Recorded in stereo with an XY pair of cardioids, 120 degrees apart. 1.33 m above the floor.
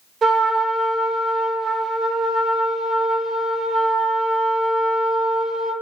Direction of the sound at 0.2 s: 40° right.